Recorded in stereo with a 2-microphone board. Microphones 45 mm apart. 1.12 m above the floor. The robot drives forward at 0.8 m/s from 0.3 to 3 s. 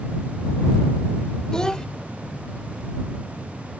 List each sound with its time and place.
1.5 s a child speaking: 15° left (ahead or behind)